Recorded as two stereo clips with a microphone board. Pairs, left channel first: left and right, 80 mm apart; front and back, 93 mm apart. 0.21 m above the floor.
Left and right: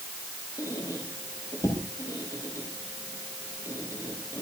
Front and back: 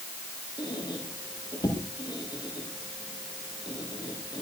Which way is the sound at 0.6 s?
45° left.